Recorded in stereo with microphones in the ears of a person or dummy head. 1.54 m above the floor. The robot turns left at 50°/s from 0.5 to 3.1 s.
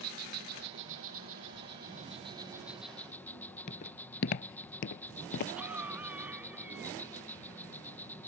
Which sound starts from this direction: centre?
A cough, at 5.6 s.